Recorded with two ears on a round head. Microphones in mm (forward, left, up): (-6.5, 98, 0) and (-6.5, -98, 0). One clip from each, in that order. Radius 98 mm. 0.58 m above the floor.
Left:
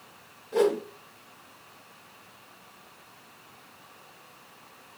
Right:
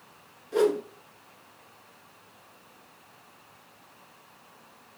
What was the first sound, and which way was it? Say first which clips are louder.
A whoosh: even; 25° right (ahead or behind).